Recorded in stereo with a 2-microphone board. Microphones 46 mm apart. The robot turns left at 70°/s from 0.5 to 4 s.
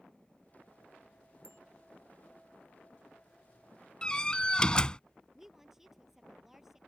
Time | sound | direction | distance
1.4 | a bicycle bell | 70° right (ahead or behind) | ?
4.0 | a door slam | 20° left (ahead or behind) | ?
5.3 | a woman speaking | 5° right (ahead or behind) | ?